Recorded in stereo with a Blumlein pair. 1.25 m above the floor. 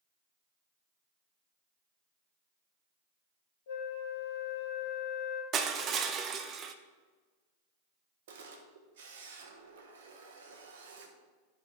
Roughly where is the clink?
I don't hear a clink.